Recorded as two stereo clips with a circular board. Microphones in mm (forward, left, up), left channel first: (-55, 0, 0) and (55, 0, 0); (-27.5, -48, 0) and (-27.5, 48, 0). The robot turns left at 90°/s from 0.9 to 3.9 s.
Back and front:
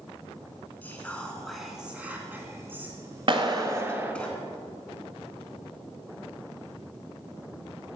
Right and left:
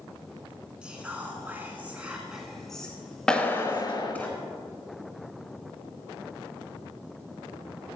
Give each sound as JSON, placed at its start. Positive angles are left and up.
{"t": 0.8, "sound": "whispering", "azimuth_deg": 150, "distance_m": 1.6}
{"t": 3.3, "sound": "a clap", "azimuth_deg": -15, "distance_m": 1.3}